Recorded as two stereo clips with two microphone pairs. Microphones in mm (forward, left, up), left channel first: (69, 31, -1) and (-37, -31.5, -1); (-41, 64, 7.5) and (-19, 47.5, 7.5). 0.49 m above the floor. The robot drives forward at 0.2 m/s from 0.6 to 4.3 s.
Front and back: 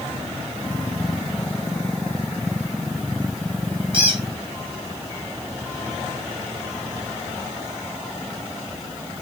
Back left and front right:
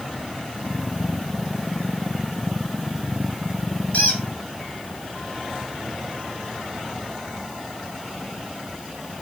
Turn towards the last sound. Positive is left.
turn(degrees=165)